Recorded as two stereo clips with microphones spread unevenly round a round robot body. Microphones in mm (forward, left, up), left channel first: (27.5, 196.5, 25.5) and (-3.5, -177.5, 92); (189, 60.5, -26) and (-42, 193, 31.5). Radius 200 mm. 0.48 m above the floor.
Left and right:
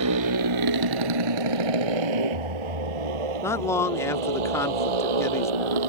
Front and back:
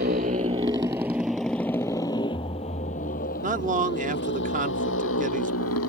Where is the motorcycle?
145° right; by 5.9 s 90° right.